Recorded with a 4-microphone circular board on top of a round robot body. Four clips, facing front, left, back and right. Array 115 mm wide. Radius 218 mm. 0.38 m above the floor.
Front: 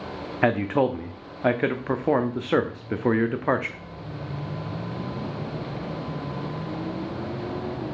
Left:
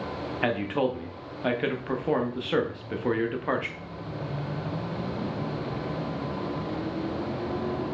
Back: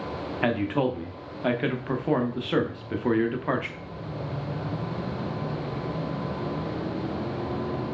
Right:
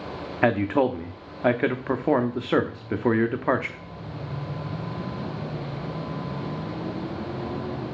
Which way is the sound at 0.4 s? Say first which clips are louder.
Right 6 dB, front 4 dB; 50° right.